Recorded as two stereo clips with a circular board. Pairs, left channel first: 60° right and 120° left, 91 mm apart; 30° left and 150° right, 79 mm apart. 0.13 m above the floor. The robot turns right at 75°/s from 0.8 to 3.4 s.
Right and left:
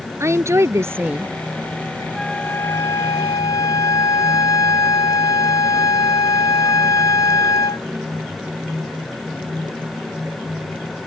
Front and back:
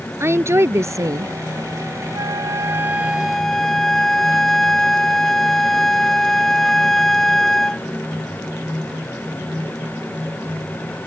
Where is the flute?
150° right; by 7.9 s 55° right.